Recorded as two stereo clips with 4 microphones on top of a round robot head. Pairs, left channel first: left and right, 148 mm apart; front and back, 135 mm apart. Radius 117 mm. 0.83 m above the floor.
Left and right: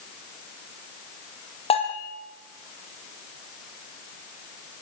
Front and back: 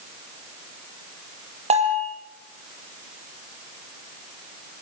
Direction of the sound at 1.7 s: 140° left.